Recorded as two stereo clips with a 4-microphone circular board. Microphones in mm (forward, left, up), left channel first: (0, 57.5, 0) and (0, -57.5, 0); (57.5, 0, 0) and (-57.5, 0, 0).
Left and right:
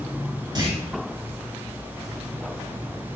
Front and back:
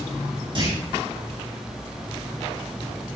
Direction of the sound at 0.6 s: 140° right.